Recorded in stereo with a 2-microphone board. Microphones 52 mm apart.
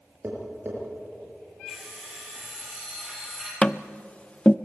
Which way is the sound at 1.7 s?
5° right (ahead or behind).